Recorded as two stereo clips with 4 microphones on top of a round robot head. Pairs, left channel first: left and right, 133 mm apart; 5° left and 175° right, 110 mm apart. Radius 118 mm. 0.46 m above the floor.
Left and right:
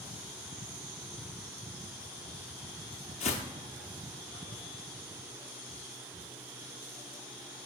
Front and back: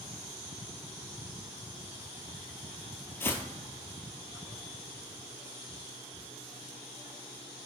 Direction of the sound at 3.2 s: 70° left.